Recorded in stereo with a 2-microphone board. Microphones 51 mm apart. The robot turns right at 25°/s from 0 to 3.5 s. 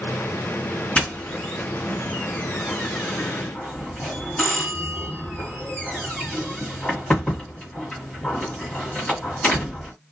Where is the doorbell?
25° left (ahead or behind), 1.6 m; by 9.9 s 30° left (ahead or behind), 1.6 m.